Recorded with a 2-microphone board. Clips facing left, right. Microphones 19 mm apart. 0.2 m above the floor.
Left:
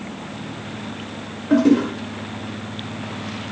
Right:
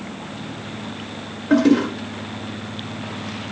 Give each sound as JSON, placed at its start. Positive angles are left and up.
{"t": 1.5, "sound": "a toilet flushing", "side_deg": -30, "distance_m": 0.9}